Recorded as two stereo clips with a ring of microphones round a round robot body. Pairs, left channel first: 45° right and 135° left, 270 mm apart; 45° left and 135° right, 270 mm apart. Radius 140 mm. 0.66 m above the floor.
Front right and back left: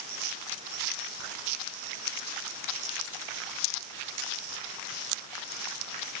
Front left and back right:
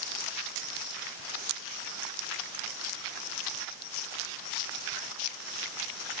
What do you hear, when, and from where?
Only background noise.